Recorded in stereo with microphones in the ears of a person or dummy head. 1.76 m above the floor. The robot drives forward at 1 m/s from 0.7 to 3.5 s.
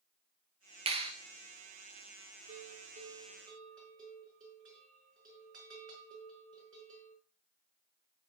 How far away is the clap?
About 1.1 m.